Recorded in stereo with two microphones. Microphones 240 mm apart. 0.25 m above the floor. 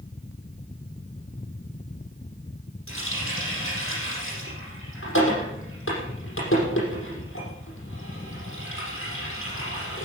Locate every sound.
2.9 s a running tap: 60° left (ahead or behind), 6 m